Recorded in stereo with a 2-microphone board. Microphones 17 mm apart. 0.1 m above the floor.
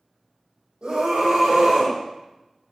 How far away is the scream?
About 4 m.